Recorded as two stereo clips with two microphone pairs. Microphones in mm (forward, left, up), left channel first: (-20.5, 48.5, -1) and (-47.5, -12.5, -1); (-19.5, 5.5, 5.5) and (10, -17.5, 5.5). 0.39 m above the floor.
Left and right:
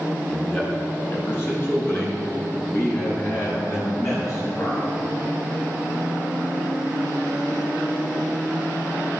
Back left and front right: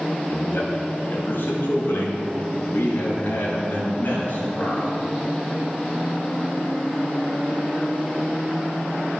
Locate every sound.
0.3 s a man speaking: 130° left, 4.5 m; by 5.0 s 110° left, 7.5 m